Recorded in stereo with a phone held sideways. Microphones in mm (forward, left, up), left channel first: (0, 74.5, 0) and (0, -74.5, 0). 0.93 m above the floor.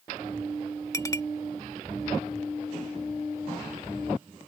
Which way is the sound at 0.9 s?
20° left (ahead or behind).